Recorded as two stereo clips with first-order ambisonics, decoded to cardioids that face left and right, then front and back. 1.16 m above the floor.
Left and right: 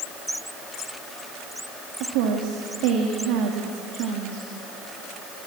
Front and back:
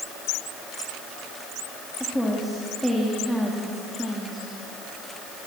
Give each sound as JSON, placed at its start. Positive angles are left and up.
{"t": 2.0, "sound": "a woman speaking", "azimuth_deg": -90, "distance_m": 2.5}